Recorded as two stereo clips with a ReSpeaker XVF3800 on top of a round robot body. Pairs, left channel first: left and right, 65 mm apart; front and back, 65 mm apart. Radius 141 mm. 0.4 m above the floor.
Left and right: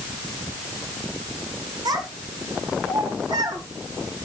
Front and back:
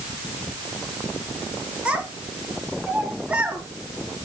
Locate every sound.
1.9 s a child speaking: 110° right, 4 m